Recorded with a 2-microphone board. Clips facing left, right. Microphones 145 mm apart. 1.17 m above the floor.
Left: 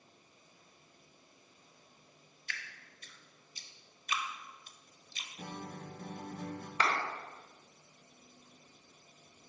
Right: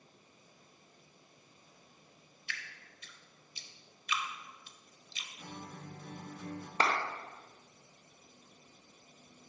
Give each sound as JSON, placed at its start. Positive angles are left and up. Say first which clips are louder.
{"t": 2.5, "sound": "dripping", "louder": "even", "side_deg": 45, "distance_m": 0.7}
{"t": 5.4, "sound": "a guitar", "louder": "left 3 dB", "side_deg": 50, "distance_m": 0.8}
{"t": 6.8, "sound": "a clap", "louder": "right 2 dB", "side_deg": -35, "distance_m": 1.1}